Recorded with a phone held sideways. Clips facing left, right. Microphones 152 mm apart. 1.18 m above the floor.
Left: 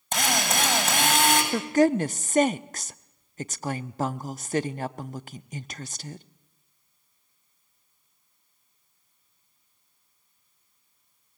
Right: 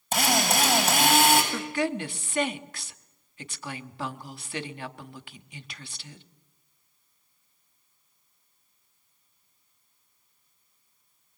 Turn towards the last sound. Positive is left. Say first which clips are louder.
# left 8 dB
turn(degrees=45)  # may be behind; listen again after turning